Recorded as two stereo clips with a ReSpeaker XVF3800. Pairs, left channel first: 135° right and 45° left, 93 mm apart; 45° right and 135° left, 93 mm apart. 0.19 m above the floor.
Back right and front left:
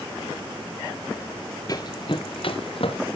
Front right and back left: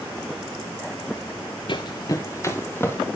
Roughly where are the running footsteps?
Right.